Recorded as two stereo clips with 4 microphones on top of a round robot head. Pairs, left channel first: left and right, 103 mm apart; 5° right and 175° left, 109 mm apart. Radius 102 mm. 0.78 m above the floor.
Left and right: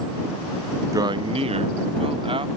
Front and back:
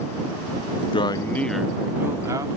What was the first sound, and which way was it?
A man speaking, 35° right.